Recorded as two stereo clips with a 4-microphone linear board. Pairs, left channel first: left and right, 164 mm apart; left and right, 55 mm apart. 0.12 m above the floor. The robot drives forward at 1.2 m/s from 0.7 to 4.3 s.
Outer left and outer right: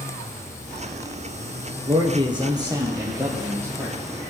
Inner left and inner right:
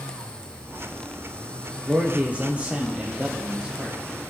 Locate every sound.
1.9 s a man speaking: 35° right (ahead or behind), 2 m; by 4.0 s 15° right (ahead or behind), 4 m